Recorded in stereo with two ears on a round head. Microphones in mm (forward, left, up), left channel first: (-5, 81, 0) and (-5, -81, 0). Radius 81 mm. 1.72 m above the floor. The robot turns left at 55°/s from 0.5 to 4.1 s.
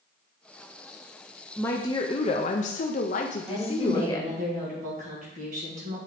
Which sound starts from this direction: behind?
A woman speaking, at 1.6 s.